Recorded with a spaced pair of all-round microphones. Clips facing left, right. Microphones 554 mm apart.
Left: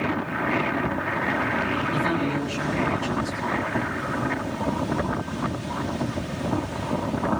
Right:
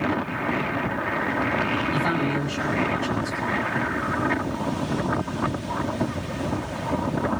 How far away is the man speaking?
About 8.5 m.